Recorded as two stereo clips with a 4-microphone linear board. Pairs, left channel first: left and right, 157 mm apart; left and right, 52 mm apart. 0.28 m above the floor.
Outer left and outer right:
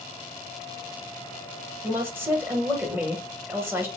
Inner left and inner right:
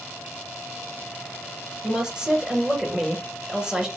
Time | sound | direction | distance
1.8 | a woman speaking | 15° right (ahead or behind) | 1.1 m